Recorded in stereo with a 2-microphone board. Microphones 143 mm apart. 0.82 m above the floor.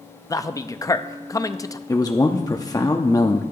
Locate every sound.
0.3 s a man speaking: 25° left (ahead or behind), 0.6 m
1.9 s a man speaking: 25° left (ahead or behind), 0.9 m